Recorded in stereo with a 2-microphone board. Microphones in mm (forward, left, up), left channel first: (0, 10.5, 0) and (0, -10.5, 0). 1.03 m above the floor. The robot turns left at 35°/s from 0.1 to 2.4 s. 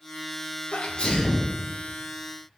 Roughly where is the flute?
I don't hear a flute.